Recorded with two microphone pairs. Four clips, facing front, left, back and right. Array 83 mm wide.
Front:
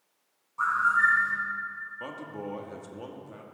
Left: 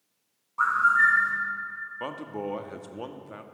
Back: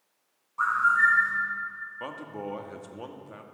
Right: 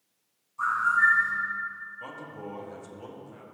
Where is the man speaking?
110° left, 1.0 m.